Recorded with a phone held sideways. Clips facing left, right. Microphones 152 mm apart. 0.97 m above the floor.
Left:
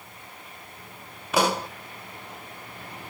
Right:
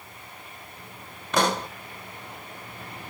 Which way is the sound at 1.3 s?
10° left (ahead or behind).